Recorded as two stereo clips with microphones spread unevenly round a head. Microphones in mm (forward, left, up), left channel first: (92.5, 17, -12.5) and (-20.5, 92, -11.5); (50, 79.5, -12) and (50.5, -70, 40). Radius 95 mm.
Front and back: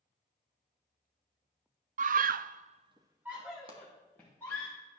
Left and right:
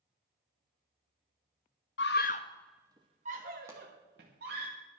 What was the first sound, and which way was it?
A scream, 130° left.